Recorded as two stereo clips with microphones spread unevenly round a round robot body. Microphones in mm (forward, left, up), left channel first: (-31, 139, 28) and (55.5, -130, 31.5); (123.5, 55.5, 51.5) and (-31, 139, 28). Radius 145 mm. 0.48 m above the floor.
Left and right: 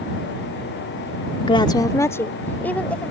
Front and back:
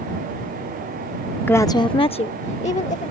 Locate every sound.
1.5 s a woman speaking: 55° left; by 3.1 s 20° left